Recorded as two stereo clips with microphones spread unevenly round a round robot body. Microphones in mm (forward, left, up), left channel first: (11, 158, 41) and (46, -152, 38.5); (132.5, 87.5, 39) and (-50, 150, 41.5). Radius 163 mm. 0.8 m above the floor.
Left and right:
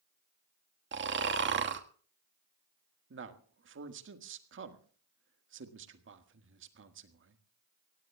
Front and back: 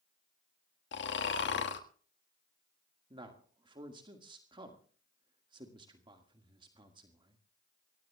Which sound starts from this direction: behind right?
A man speaking, at 3.1 s.